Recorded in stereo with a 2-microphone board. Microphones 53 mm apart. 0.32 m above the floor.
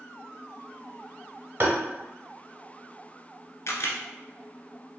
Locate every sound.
1.6 s tapping: 45° right (ahead or behind), 1.1 m
3.7 s a camera shutter: 65° left (ahead or behind), 0.8 m